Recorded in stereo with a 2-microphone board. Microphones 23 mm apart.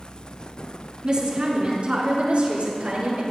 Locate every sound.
1.0 s a woman speaking: 35° right (ahead or behind), 3.5 m; by 3.2 s 70° right (ahead or behind), 5 m